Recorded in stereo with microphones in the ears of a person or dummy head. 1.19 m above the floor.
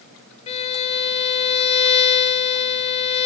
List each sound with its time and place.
0.5 s a violin: 35° left (ahead or behind), 0.7 m